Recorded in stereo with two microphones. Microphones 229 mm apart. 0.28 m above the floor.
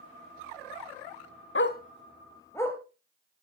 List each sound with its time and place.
1.6 s a dog barking: 60° left (ahead or behind), 0.6 m; by 2.8 s 10° left (ahead or behind), 1.6 m